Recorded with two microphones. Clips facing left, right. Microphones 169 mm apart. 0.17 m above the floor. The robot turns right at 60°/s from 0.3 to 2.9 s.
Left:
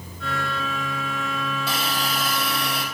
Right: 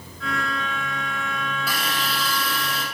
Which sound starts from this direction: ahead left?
A hiss, at 1.7 s.